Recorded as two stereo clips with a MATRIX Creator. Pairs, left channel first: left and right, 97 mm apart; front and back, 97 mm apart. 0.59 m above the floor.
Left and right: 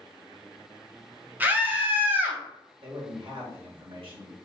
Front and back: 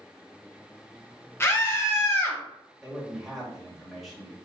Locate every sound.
1.4 s a scream: 35° right, 0.9 m
2.8 s a man speaking: 90° right, 2 m